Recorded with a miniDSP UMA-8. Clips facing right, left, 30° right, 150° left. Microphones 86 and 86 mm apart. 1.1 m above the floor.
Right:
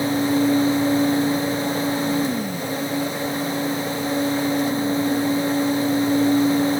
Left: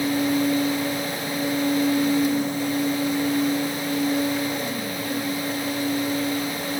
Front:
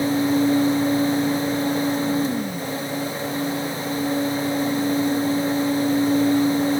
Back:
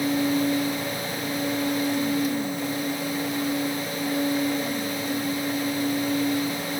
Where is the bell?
I don't hear a bell.